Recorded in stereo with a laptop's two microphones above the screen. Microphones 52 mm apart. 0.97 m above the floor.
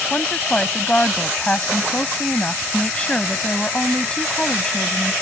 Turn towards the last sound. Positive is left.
turn(degrees=20)  # may be behind; listen again after turning